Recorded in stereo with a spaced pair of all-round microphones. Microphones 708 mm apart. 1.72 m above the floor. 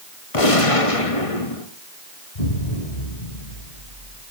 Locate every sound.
0.3 s a gunshot: 45° left (ahead or behind), 1.6 m
2.4 s an explosion: 60° left (ahead or behind), 3 m